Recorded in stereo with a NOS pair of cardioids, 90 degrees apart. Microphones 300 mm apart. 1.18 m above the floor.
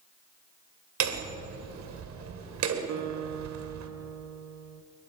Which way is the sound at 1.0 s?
65° right.